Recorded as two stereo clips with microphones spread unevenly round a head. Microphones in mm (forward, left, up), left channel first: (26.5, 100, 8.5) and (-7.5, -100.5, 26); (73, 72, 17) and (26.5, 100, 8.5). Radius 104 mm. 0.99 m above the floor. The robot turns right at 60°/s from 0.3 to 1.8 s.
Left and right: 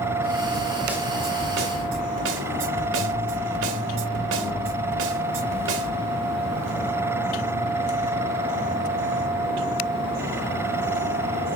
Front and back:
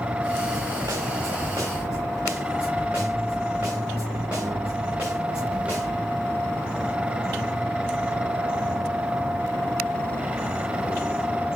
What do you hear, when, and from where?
0.5 s a snare drum: 160° left, 1.5 m; by 6.1 s 125° right, 1.5 m